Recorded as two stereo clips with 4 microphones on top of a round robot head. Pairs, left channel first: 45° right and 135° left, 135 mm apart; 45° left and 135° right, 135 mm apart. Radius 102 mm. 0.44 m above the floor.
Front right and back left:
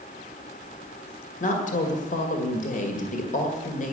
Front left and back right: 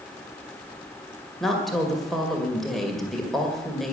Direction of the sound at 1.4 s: 45° right.